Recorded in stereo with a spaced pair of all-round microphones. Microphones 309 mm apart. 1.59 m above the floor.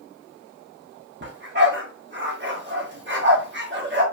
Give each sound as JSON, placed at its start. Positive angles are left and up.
{"t": 1.2, "sound": "a dog barking", "side_deg": -35, "distance_m": 1.3}